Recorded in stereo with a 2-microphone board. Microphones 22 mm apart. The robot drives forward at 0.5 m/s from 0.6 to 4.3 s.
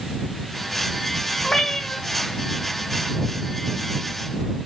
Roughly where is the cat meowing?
Left.